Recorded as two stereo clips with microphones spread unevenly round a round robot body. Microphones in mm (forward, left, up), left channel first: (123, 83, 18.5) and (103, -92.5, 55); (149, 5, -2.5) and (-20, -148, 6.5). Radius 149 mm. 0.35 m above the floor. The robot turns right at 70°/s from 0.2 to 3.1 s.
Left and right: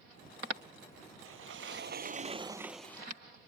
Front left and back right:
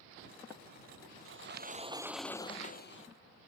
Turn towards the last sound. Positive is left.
turn(degrees=15)